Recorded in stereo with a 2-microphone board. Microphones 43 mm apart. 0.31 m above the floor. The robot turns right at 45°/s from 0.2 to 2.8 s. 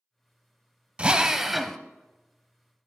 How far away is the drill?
About 0.5 m.